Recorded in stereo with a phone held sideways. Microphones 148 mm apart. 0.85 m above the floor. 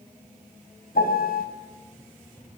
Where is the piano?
85° left, 3 m.